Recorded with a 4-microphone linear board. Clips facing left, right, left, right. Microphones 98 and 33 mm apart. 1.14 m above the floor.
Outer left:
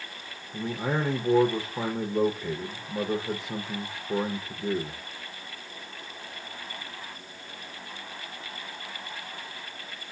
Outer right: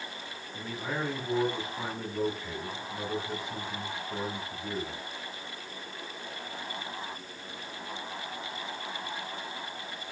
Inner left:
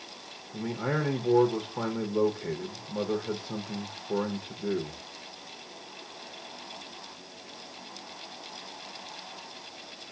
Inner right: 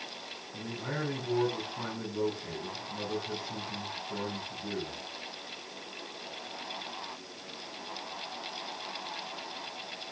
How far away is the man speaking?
About 0.9 m.